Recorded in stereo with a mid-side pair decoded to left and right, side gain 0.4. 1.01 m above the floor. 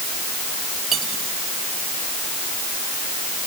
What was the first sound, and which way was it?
Cutlery clinking, 65° right.